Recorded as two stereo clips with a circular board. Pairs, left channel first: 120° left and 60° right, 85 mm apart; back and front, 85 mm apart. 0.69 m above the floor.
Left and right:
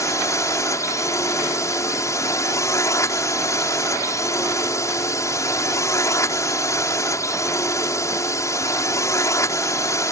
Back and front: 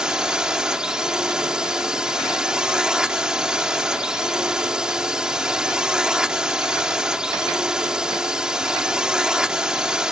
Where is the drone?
80° left.